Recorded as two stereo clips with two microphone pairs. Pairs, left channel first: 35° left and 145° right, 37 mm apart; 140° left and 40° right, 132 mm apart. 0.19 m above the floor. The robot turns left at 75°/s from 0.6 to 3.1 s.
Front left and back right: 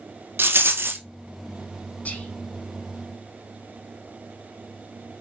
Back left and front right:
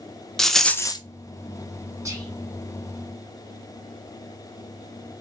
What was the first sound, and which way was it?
A rattle, 135° right.